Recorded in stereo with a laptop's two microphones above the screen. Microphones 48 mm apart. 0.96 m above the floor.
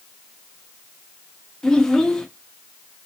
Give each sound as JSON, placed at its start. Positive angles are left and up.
{"t": 1.6, "sound": "a child speaking", "side_deg": 10, "distance_m": 0.5}